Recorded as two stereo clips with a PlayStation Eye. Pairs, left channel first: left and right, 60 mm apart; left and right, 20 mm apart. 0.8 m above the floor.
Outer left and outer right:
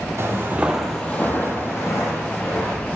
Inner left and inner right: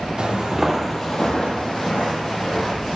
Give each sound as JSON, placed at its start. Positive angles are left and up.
{"t": 0.2, "sound": "footsteps", "side_deg": -40, "distance_m": 1.2}